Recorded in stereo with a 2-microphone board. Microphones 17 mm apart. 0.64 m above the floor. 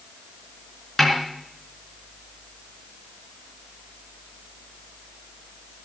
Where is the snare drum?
Centre (ahead or behind), 4 m.